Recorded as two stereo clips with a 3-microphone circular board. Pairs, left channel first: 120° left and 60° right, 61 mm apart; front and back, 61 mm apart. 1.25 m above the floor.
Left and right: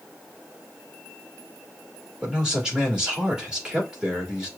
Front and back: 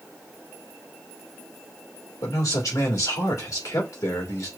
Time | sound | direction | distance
2.2 | a man speaking | 15° left | 2 m